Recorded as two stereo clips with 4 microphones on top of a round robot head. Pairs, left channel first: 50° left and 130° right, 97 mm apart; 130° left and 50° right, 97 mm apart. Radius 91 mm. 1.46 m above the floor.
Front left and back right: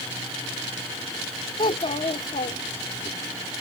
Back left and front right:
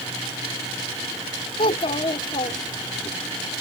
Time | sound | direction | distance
1.6 | a child speaking | 95° left | ?